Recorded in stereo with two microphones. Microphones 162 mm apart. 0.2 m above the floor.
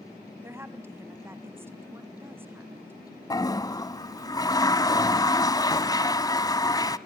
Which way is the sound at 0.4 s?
15° right (ahead or behind).